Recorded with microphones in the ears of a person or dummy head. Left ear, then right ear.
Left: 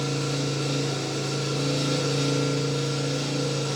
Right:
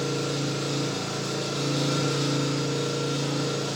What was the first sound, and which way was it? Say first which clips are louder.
An engine running: even; centre (ahead or behind).